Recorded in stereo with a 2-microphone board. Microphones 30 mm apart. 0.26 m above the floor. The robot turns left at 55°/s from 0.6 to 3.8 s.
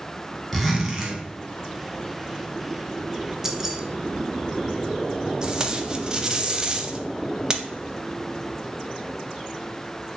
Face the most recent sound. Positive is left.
turn(degrees=-30)  # may be behind; listen again after turning